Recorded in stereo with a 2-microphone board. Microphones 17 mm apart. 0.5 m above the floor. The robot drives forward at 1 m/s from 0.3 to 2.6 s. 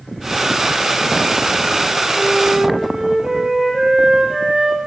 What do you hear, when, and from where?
2.1 s a flute: 25° right (ahead or behind), 9 m; by 4.8 s 20° right (ahead or behind), 9.5 m